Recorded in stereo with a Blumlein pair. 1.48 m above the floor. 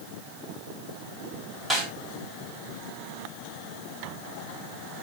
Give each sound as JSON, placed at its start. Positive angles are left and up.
{"t": 1.7, "sound": "a snare drum", "azimuth_deg": -5, "distance_m": 2.0}